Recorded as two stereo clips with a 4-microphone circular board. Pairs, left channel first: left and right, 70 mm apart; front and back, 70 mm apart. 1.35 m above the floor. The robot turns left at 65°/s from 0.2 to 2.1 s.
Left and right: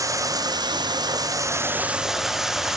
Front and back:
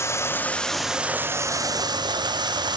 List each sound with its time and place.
0.0 s running water: 50° right, 0.9 m; by 2.8 s 175° right, 0.9 m